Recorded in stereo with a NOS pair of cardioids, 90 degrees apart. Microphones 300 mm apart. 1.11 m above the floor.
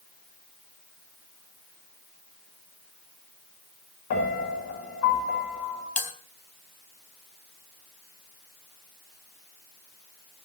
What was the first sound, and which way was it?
A piano, 60° left.